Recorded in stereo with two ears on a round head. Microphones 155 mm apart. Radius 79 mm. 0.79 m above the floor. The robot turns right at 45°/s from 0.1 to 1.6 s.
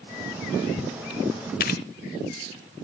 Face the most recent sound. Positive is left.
turn(degrees=60)  # may be behind; listen again after turning